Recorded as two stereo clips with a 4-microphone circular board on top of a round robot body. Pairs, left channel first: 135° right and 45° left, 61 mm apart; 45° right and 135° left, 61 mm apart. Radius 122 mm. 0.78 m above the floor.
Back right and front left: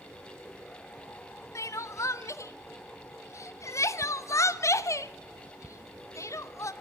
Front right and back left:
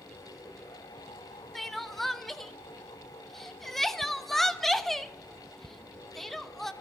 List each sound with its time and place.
1.6 s crying: 130° right, 1.1 m